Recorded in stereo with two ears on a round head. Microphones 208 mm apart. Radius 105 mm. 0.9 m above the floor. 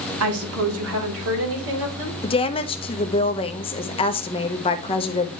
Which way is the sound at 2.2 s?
25° left (ahead or behind).